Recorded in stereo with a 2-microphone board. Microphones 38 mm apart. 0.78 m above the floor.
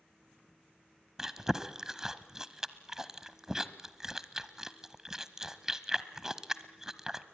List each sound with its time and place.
1.2 s chewing: 15° right (ahead or behind), 0.8 m